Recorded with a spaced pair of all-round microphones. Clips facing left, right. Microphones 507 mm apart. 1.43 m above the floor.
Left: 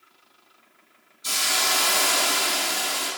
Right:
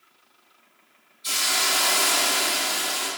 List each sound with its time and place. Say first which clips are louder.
1.2 s a hiss: left 1 dB; 65° left (ahead or behind), 0.7 m